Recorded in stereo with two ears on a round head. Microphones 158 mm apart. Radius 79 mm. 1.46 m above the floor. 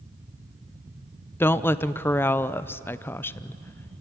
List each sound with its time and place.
1.4 s a woman speaking: 10° left (ahead or behind), 0.5 m